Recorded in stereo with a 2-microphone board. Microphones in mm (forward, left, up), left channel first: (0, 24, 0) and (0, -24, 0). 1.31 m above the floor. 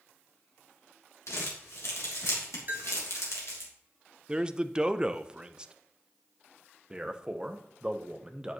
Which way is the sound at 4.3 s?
15° right (ahead or behind).